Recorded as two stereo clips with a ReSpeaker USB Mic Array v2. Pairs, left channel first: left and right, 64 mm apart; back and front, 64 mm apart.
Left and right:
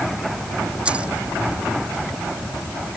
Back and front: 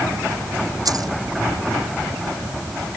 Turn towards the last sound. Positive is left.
turn(degrees=-20)